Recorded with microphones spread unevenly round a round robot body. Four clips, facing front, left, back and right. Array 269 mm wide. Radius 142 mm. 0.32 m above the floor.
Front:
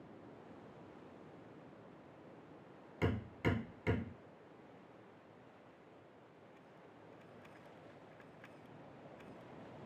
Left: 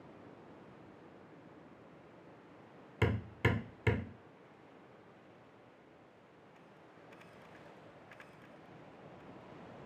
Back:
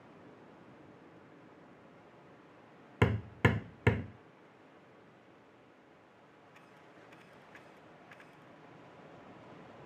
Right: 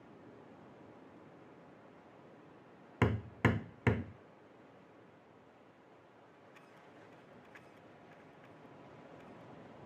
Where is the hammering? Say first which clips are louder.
Right 2 dB, back 7 dB; 165° right, 0.7 m.